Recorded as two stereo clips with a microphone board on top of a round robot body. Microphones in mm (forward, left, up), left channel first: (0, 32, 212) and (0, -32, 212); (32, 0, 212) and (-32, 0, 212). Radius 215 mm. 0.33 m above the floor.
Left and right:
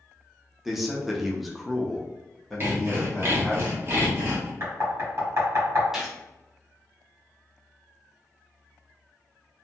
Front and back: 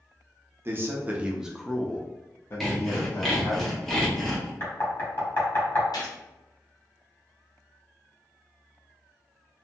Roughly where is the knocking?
Ahead right.